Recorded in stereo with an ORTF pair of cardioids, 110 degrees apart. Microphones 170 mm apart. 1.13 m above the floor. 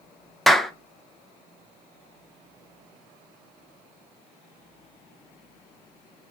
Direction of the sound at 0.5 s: Straight ahead.